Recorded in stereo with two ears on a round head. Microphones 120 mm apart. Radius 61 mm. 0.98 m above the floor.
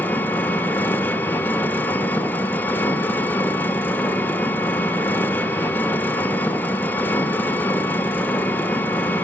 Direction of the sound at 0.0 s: 15° left (ahead or behind).